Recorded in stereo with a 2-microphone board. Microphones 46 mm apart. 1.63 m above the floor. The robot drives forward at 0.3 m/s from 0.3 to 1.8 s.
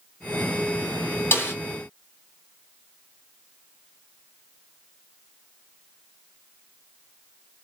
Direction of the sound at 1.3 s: 55° left (ahead or behind).